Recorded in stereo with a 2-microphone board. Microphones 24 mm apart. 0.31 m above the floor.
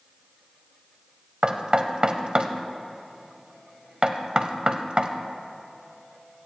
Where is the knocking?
45° right (ahead or behind), 1.0 m.